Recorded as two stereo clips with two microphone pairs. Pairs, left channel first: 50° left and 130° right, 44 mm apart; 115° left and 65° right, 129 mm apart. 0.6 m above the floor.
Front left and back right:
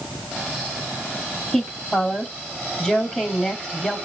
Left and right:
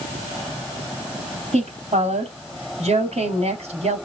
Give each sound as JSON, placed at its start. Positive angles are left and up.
{"t": 1.5, "sound": "a woman speaking", "azimuth_deg": -30, "distance_m": 4.5}